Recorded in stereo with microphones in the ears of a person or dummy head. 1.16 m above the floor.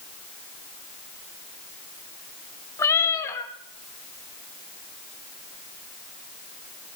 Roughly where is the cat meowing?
Centre.